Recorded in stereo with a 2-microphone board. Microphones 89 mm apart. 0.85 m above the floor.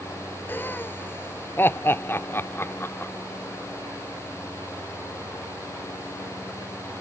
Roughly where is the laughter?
Left.